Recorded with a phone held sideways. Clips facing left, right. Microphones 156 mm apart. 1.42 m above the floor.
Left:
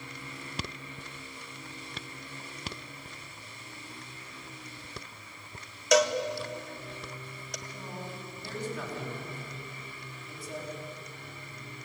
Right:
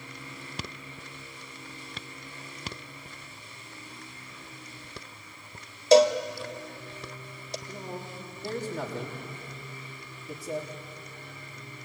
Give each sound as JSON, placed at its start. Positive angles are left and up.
{"t": 5.9, "sound": "a cowbell", "side_deg": -30, "distance_m": 0.9}
{"t": 7.7, "sound": "a man speaking", "side_deg": -40, "distance_m": 3.0}